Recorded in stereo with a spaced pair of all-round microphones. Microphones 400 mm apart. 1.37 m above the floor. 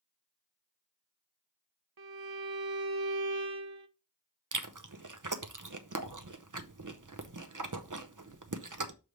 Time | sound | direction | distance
2.0 | a violin | 60° right (ahead or behind) | 0.7 m
4.5 | chewing | 50° right (ahead or behind) | 0.7 m